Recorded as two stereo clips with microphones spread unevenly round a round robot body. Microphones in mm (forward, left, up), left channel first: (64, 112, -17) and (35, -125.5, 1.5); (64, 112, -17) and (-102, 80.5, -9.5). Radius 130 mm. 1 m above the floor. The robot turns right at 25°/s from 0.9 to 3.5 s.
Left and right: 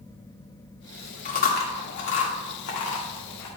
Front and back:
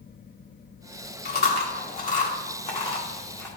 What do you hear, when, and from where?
1.2 s chewing: 30° left, 1.4 m; by 3.5 s 85° left, 1.4 m